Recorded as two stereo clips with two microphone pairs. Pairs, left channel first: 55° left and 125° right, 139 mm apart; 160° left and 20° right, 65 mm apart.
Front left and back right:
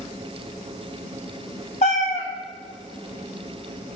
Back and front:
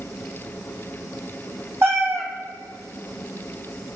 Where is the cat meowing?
25° left, 0.6 m.